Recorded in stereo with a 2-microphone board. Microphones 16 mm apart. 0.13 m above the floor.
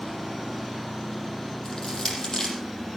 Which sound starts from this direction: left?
Crushing, at 1.6 s.